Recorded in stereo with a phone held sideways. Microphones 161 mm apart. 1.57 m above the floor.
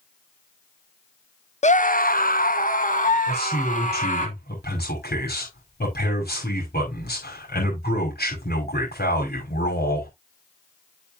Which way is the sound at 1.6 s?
45° left (ahead or behind).